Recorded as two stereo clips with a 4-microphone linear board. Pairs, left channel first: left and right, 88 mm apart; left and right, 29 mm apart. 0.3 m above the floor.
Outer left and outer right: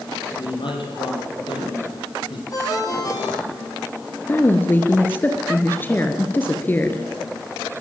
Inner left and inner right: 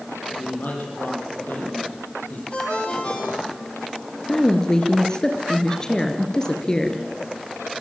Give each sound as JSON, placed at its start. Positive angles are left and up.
{"t": 0.4, "sound": "a man speaking", "side_deg": 70, "distance_m": 8.0}
{"t": 2.5, "sound": "a ringtone", "side_deg": 40, "distance_m": 9.0}
{"t": 4.3, "sound": "a woman speaking", "side_deg": 20, "distance_m": 4.0}